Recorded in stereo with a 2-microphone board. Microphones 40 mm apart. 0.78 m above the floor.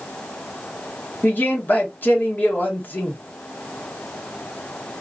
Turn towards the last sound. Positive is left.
turn(degrees=50)  # may be behind; listen again after turning